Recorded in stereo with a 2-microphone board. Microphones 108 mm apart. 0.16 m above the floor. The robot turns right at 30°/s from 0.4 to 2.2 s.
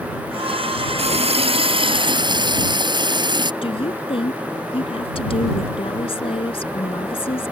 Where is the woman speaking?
55° left (ahead or behind).